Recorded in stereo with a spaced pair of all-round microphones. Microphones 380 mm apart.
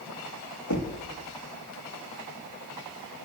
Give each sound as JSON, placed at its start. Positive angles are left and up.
{"t": 0.7, "sound": "knocking", "side_deg": 50, "distance_m": 2.0}